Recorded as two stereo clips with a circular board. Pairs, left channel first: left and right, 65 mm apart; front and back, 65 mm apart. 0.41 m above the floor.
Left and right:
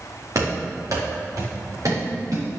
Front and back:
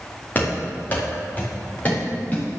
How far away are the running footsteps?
About 4.5 m.